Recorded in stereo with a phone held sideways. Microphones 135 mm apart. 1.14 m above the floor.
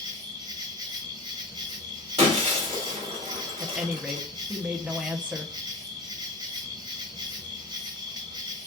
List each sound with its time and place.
0.0 s an insect: 35° right (ahead or behind), 1.1 m
2.2 s breaking glass: 45° right (ahead or behind), 2.5 m
3.6 s a woman speaking: 10° right (ahead or behind), 0.8 m